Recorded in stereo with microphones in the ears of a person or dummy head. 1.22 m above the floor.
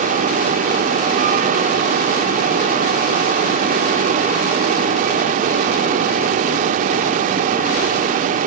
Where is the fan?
45° right (ahead or behind), 2.0 m.